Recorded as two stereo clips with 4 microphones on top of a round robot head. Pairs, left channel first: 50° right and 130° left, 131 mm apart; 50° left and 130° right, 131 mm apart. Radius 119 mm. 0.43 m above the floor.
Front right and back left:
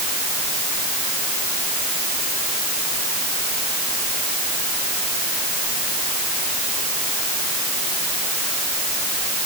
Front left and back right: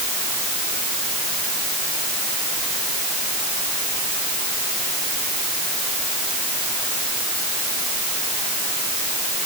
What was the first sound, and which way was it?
Only background noise.